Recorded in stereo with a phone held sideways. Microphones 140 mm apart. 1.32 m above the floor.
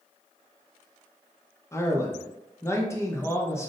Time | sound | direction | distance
1.7 | a man speaking | 20° left (ahead or behind) | 0.7 m